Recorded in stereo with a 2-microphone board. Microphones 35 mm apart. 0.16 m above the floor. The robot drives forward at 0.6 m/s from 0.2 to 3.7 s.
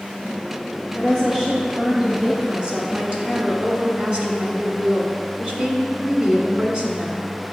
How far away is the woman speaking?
About 1.9 m.